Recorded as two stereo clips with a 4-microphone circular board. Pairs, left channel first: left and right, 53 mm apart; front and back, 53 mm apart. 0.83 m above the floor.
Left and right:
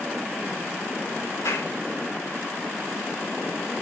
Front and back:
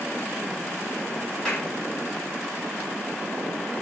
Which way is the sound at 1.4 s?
80° left.